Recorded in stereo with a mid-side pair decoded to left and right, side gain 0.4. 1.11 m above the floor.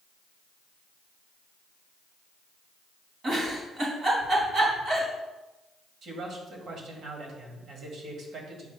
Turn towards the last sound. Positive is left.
turn(degrees=-65)